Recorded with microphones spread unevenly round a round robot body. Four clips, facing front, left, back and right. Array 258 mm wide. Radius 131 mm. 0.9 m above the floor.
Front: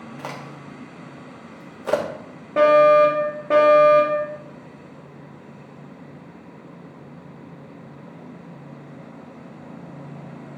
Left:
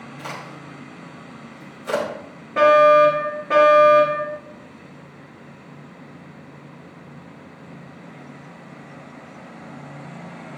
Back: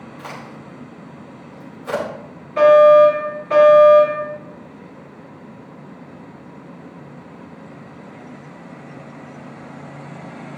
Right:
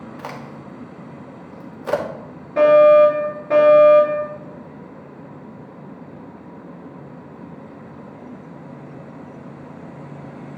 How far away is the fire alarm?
About 3.5 m.